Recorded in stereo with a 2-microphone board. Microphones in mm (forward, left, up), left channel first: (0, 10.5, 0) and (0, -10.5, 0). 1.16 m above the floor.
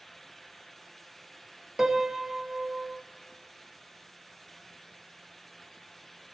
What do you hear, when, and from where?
1.8 s a piano: 30° right (ahead or behind), 0.6 m